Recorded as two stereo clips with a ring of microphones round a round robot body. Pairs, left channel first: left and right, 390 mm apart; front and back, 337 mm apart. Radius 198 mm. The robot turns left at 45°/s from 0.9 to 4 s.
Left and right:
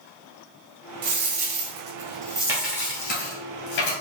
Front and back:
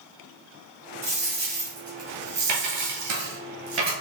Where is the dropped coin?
105° right, 1.9 m; by 3.9 s 125° left, 1.9 m.